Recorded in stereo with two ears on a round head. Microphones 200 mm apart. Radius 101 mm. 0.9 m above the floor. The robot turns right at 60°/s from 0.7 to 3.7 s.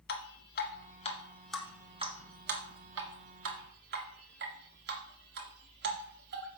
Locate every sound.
0.1 s dripping: 50° left (ahead or behind), 1.8 m; by 6.6 s 50° right (ahead or behind), 1.8 m